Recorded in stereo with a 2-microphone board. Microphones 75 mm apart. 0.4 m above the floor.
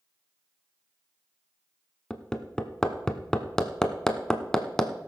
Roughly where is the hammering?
Centre.